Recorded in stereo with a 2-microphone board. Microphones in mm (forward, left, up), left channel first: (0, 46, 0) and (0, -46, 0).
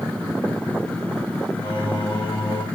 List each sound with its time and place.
1.6 s singing: 55° left (ahead or behind), 4 m